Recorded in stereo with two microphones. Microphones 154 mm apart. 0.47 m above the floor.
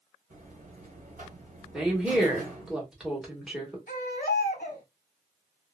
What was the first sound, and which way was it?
A buzzer, 60° right (ahead or behind).